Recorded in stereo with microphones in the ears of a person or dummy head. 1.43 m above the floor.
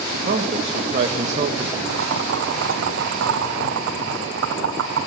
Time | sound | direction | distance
0.1 | a man speaking | 35° right (ahead or behind) | 3 m
1.9 | boiling | 65° right (ahead or behind) | 3.5 m